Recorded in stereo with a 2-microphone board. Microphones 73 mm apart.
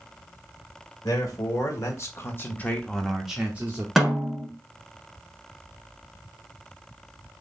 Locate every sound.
1.0 s a man speaking: 55° left (ahead or behind), 1.5 m; by 3.9 s 30° right (ahead or behind), 0.8 m
4.0 s a snare drum: 5° right (ahead or behind), 1.1 m